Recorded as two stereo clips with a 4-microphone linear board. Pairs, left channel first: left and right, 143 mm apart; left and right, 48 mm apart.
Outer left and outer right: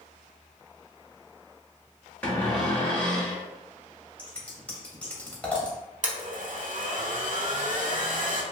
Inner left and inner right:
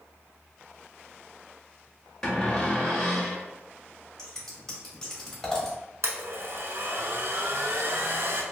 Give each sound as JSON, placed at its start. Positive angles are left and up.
{"t": 2.2, "sound": "a cupboard door", "side_deg": 10, "distance_m": 0.9}
{"t": 4.2, "sound": "scissors", "side_deg": 10, "distance_m": 1.0}
{"t": 6.0, "sound": "a blender", "side_deg": -60, "distance_m": 0.5}